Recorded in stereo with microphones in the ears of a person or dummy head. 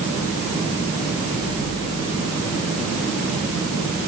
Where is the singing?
I don't hear singing.